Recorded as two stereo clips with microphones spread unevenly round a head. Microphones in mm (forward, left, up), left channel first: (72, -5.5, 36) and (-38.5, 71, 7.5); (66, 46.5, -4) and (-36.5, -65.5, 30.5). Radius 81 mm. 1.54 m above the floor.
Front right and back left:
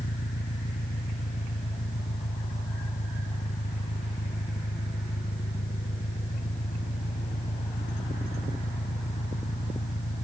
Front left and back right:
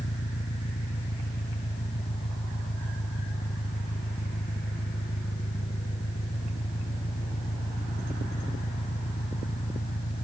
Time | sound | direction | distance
0.0 | an engine running | straight ahead | ?